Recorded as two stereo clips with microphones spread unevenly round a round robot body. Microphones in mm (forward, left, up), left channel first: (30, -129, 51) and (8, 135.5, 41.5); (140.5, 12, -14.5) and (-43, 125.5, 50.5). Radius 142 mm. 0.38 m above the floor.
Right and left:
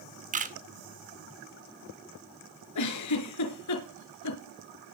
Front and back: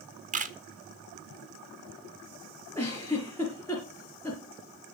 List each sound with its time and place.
0.3 s a camera shutter: 95° left, 1.6 m
2.8 s a giggle: 110° right, 4 m